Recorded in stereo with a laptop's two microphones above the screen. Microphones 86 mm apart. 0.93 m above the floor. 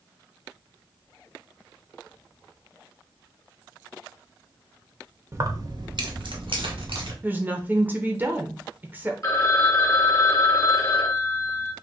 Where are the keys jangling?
30° right (ahead or behind), 0.5 m; by 7.1 s 85° right, 1.2 m.